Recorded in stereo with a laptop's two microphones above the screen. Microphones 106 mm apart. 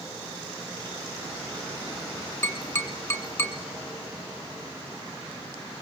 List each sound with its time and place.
2.4 s tapping: 30° left (ahead or behind), 1.9 m